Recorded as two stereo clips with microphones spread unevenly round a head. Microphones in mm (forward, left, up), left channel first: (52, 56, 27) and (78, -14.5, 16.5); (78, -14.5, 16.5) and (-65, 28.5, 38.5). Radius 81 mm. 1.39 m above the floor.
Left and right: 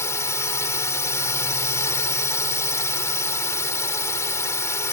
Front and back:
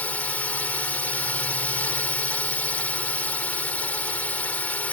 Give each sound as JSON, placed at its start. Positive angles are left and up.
{"t": 0.0, "sound": "a drone", "azimuth_deg": 65}